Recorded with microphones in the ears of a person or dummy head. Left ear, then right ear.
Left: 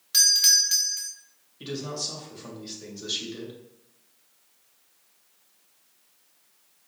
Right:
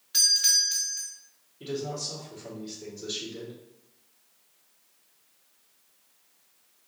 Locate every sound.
0.1 s a doorbell: 10° left (ahead or behind), 0.5 m
1.6 s a man speaking: 35° left (ahead or behind), 1.4 m